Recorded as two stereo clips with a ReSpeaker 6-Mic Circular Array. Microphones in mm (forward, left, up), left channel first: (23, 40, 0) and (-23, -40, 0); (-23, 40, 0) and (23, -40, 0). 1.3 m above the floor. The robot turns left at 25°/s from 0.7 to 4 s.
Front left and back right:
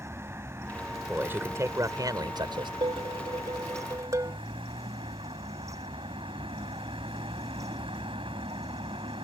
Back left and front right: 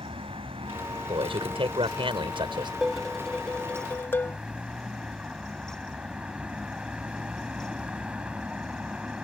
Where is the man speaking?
50° right; by 2.7 s 90° right.